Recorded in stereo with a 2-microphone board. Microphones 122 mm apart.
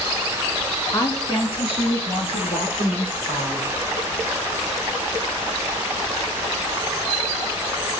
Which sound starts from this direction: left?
A woman speaking, at 0.9 s.